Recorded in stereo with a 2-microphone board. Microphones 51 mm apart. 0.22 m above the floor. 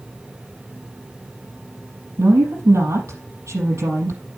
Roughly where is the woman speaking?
Right.